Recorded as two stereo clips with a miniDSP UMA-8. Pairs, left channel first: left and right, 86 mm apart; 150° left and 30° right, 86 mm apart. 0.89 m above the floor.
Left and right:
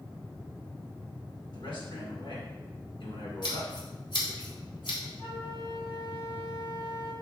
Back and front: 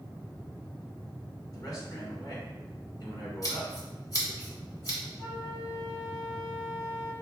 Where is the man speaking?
100° left, 2.5 m.